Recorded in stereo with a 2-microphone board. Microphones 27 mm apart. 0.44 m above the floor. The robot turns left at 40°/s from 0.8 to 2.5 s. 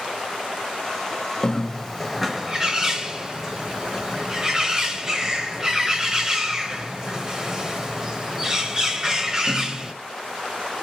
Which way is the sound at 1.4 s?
20° left.